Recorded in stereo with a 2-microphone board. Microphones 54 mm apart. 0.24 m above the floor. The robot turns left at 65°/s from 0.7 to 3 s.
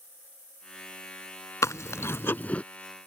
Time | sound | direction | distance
1.6 | chewing | 90° left | ?